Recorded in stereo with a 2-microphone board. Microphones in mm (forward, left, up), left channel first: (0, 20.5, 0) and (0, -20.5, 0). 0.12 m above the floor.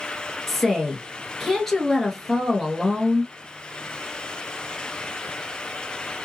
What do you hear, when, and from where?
0.5 s a woman speaking: 5° left (ahead or behind), 1.7 m